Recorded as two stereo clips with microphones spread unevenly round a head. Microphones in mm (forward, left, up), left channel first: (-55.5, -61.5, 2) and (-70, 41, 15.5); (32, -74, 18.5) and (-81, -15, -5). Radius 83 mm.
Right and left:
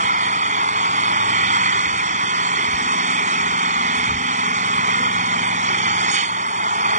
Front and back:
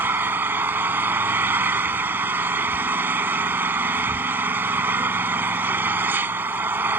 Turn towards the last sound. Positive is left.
turn(degrees=70)